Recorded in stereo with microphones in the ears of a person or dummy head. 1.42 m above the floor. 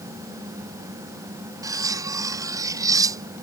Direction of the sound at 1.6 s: 20° right (ahead or behind).